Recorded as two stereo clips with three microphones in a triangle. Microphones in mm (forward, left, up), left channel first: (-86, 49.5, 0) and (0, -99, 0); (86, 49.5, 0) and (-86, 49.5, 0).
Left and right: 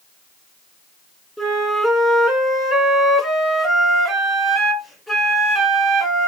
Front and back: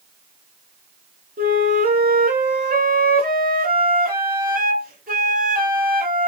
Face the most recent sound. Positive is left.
turn(degrees=-150)